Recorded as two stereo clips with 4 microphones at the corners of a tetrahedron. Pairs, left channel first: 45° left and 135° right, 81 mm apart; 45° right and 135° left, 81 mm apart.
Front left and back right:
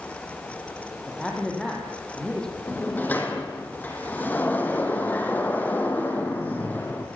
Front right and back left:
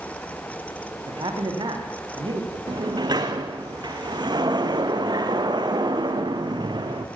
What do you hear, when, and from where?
1.1 s a man speaking: 125° left, 7 m
2.7 s a sliding door: 115° left, 3 m